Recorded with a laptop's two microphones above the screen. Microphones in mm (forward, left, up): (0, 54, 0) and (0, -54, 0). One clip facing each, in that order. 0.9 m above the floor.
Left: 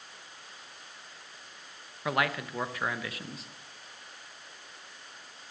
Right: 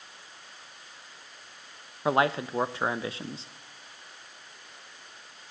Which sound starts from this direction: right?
A man speaking, at 2.0 s.